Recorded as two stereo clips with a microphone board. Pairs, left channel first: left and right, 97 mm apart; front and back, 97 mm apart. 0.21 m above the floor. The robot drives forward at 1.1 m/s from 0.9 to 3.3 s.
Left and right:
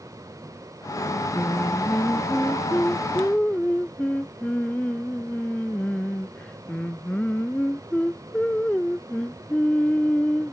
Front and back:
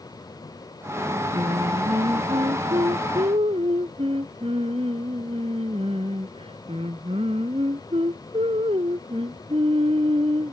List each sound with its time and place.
1.3 s singing: 165° left